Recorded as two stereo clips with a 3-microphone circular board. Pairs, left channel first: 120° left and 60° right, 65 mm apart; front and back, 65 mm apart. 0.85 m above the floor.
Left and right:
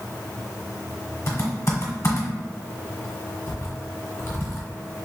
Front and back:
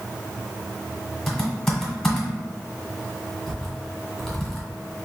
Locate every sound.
1.3 s typing on a keyboard: 80° left, 1.3 m